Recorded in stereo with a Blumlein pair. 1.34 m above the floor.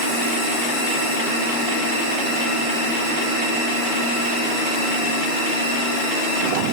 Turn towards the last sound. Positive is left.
No sound to turn to.